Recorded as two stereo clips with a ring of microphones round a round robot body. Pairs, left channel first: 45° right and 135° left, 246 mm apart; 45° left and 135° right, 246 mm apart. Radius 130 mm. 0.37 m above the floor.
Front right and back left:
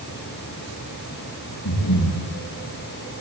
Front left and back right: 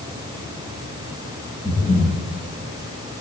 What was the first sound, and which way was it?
Breathing, 20° right.